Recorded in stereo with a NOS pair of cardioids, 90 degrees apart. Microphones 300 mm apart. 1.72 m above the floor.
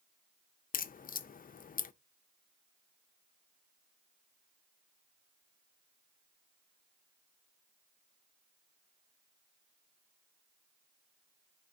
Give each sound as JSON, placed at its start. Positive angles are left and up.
{"t": 0.7, "sound": "a crack", "azimuth_deg": 30, "distance_m": 0.5}